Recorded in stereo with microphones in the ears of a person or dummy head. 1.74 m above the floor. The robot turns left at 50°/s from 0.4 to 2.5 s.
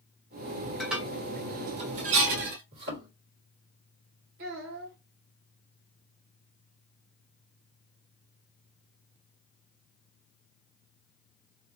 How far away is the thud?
About 1.7 m.